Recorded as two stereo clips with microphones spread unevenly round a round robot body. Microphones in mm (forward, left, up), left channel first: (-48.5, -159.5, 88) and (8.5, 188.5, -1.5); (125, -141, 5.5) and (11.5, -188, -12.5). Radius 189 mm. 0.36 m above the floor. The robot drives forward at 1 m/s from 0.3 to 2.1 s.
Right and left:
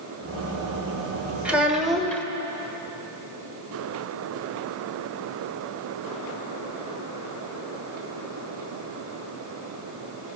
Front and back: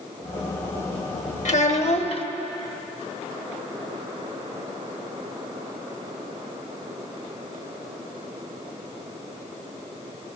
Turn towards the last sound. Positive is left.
turn(degrees=5)